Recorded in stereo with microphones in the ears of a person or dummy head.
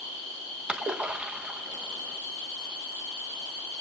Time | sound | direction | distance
0.7 | a splash | centre (ahead or behind) | 0.6 m